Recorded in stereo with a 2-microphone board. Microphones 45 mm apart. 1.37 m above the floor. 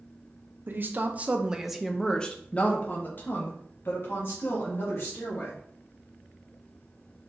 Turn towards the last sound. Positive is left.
turn(degrees=60)  # may be behind; listen again after turning